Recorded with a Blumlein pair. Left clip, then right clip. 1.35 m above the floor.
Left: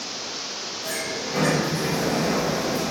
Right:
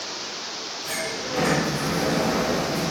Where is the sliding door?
55° left, 2.0 m.